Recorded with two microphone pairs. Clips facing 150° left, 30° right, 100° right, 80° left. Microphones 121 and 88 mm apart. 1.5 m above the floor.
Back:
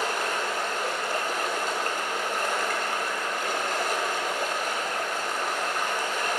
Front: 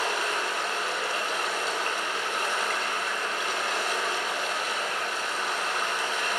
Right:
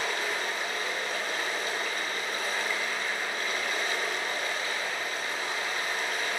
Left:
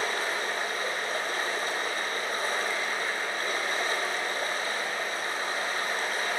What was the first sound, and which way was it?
Running water, 125° left.